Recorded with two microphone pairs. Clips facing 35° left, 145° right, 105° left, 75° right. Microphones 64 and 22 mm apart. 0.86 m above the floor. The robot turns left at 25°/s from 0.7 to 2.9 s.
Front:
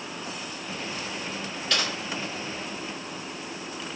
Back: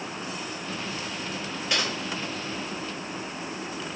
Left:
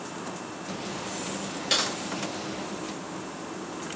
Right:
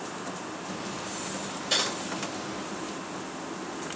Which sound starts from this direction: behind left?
Typing on a keyboard, at 1.7 s.